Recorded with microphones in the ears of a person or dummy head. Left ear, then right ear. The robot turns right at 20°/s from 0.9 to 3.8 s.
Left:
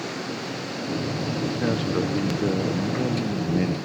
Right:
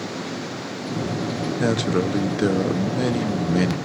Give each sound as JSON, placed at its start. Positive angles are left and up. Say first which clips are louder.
{"t": 1.6, "sound": "a man speaking", "louder": "right 5 dB", "azimuth_deg": -90, "distance_m": 1.1}